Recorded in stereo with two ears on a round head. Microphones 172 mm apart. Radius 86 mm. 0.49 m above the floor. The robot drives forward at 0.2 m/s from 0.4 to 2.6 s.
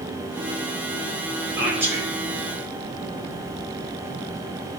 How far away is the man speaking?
About 1.7 m.